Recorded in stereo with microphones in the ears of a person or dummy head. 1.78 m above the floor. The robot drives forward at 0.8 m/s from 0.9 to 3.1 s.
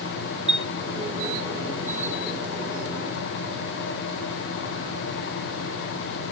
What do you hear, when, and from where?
0.5 s a chime: 5° right (ahead or behind), 0.9 m